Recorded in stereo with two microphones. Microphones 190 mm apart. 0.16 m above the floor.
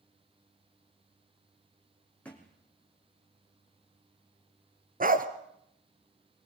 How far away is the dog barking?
About 1.4 m.